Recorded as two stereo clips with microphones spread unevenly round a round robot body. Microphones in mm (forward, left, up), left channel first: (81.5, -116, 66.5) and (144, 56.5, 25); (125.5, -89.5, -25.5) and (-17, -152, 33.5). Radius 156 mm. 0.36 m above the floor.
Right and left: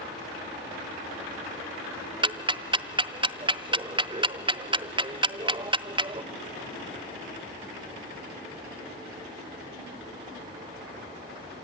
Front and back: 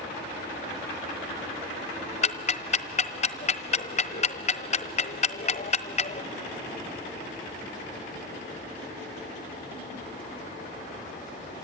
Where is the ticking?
15° left, 1.1 m.